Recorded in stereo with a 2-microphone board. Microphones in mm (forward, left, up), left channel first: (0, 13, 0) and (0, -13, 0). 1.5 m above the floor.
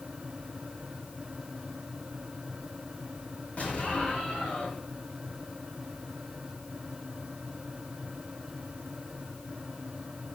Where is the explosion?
70° left (ahead or behind), 5.5 m.